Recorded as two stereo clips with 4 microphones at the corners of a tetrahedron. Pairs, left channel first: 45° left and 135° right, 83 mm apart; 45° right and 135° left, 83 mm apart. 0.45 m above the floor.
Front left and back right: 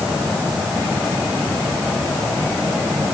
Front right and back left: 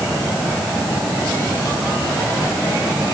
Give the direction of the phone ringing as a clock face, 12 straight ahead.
I don't hear a phone ringing.